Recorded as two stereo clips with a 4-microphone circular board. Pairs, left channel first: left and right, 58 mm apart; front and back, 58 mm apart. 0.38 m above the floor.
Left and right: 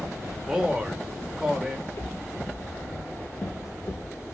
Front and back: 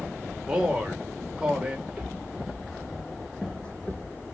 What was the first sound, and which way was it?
A man speaking, 145° right.